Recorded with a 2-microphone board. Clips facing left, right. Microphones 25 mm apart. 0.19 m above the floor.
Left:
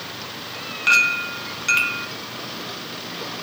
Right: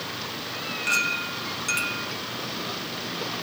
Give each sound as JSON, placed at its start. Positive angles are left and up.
{"t": 0.9, "sound": "a clink", "side_deg": 30, "distance_m": 1.2}